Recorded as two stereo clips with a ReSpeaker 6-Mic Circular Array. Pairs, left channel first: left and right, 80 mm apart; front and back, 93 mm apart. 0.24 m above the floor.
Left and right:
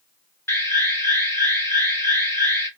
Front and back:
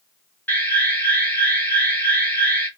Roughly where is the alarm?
Ahead left.